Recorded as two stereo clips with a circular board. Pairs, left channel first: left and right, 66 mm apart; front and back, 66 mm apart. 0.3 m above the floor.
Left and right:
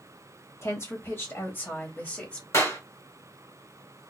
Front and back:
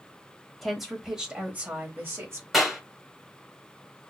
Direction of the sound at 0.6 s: 90° left.